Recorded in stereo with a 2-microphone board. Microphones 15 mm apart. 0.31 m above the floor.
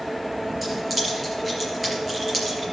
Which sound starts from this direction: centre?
Keys jangling, at 0.6 s.